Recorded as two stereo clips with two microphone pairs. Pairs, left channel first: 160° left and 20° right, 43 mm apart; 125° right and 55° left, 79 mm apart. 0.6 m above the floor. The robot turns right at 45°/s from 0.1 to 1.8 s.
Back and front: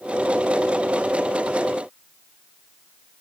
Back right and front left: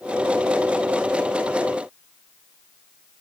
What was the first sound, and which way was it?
Only background noise.